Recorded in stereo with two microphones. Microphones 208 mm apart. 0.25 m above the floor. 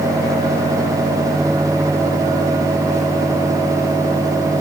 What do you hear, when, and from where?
Only background noise.